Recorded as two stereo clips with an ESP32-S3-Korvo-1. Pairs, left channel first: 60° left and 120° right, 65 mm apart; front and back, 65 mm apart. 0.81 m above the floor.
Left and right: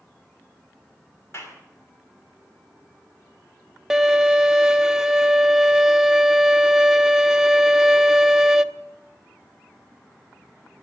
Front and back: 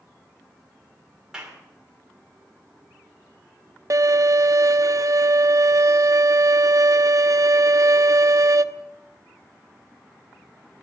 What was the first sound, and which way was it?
A clap, 105° left.